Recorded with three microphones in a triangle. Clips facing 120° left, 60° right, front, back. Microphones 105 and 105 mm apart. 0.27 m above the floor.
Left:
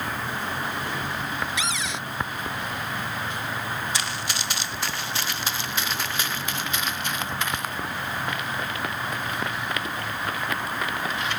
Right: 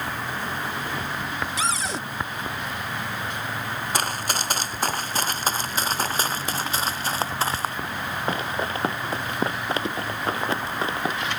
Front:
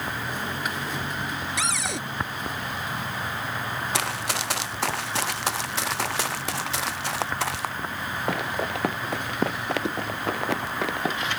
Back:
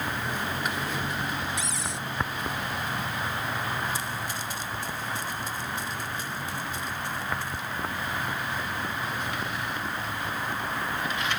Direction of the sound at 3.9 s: 15° right.